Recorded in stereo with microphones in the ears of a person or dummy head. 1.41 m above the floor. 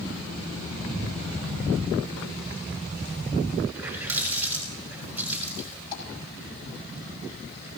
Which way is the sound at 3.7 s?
15° right (ahead or behind).